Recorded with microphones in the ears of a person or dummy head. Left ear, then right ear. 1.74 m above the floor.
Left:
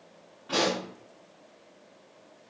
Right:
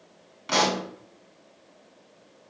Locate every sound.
0.5 s a pop: 65° right (ahead or behind), 1.1 m